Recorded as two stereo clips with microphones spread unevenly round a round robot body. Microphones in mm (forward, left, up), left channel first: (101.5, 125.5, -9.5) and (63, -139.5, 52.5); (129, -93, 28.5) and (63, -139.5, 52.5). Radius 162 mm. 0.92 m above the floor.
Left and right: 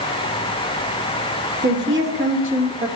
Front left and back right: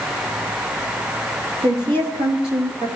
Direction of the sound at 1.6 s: 155° right.